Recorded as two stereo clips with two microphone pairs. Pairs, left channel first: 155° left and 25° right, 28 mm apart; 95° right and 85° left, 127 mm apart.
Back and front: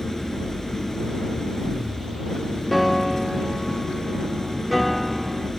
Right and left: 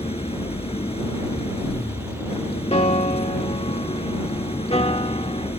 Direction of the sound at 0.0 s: 135° right.